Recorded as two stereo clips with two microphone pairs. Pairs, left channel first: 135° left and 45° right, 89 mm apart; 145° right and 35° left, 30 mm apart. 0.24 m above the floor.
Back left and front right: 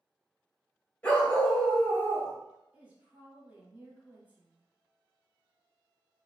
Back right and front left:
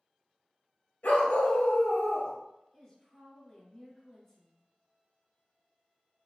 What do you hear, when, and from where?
1.0 s a dog barking: 150° right, 1.8 m
2.7 s a woman speaking: 95° right, 1.7 m